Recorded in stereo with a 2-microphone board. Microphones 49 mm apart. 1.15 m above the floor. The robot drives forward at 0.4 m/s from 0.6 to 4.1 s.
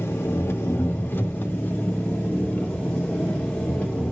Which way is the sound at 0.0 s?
55° left (ahead or behind).